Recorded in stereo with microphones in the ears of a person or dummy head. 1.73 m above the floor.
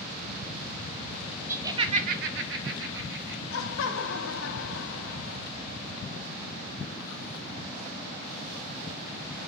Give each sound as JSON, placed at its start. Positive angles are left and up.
{"t": 1.5, "sound": "laughter", "side_deg": -15, "distance_m": 1.0}
{"t": 3.5, "sound": "laughter", "side_deg": 80, "distance_m": 0.9}